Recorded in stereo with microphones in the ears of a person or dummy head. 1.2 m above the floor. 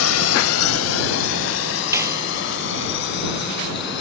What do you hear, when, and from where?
0.0 s a drone: 80° left; by 4.0 s 60° left (ahead or behind)
1.9 s a clap: 10° right (ahead or behind)